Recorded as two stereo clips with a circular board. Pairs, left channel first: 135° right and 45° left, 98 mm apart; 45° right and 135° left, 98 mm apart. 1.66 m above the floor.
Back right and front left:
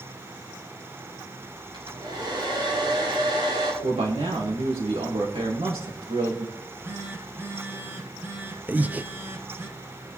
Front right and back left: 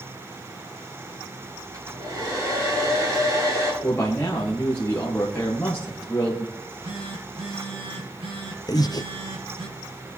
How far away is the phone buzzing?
About 2.5 m.